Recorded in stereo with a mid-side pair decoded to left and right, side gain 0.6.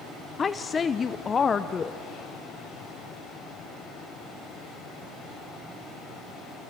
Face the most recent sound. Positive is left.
turn(degrees=30)